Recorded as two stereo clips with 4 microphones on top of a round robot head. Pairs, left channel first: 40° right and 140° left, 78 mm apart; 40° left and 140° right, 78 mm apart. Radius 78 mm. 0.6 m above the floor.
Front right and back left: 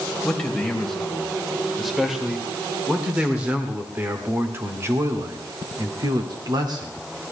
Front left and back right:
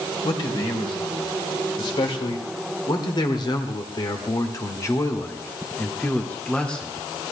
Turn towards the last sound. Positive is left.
turn(degrees=125)